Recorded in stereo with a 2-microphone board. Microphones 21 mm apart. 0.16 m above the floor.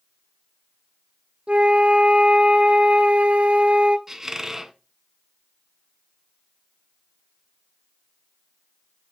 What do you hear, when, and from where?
1.5 s a flute: 70° right (ahead or behind), 0.8 m
4.1 s a squeak: 20° right (ahead or behind), 0.8 m